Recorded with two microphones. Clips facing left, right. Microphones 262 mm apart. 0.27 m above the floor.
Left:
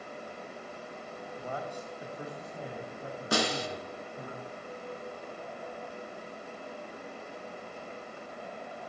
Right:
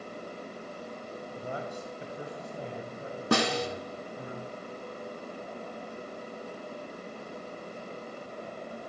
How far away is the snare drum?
About 1.0 m.